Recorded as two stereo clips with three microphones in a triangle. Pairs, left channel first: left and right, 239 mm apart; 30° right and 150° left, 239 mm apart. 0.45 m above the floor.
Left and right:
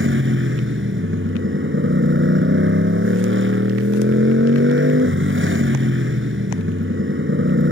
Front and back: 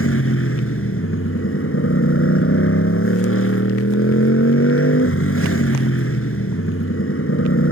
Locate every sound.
0.0 s a motorcycle: 55° right